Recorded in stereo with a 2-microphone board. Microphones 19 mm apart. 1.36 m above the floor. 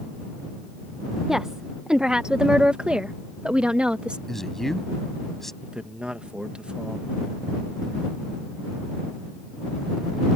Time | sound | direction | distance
1.3 | a woman speaking | 30° right (ahead or behind) | ?
4.3 | a man speaking | 15° left (ahead or behind) | ?
5.6 | a man speaking | 70° right (ahead or behind) | ?